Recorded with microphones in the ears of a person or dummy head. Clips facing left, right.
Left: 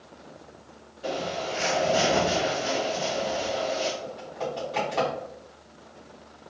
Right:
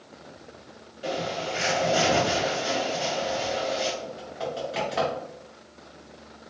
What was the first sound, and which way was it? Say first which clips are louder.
A bird: even; 30° right (ahead or behind).